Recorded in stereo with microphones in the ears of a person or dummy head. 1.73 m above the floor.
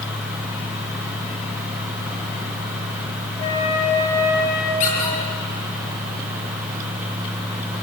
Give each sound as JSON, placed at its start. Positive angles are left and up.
{"t": 3.4, "sound": "a flute", "side_deg": 25, "distance_m": 5.0}
{"t": 4.8, "sound": "a squeak", "side_deg": 45, "distance_m": 9.0}